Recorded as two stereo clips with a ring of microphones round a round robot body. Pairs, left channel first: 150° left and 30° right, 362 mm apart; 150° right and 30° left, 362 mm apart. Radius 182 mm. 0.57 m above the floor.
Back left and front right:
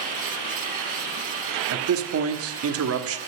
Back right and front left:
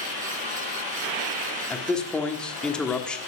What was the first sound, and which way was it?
A man speaking, 65° right.